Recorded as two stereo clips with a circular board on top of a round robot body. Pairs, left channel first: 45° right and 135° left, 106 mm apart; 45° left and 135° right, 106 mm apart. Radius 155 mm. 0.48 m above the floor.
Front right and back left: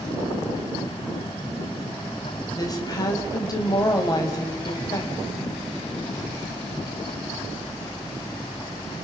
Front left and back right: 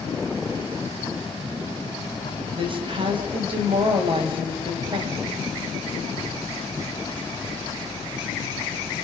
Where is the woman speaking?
95° right, 3.5 m.